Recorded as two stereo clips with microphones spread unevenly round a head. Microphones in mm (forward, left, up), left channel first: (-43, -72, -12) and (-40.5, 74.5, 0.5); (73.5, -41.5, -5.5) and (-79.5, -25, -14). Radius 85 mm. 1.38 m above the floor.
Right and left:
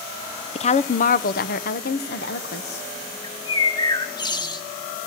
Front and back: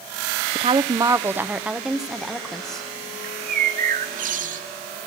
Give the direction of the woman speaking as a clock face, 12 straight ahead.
5 o'clock.